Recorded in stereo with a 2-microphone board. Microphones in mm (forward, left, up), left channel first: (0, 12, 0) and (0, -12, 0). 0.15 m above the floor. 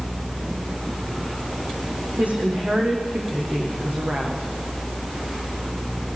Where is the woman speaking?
75° right (ahead or behind), 7 m.